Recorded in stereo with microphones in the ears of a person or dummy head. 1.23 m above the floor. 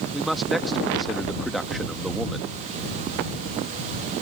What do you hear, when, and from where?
0.1 s a man speaking: 5° left (ahead or behind)